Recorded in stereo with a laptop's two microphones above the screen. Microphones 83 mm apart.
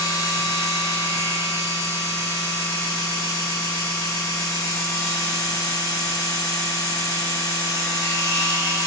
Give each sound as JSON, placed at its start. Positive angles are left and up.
{"t": 0.0, "sound": "a machine running", "side_deg": 40, "distance_m": 1.7}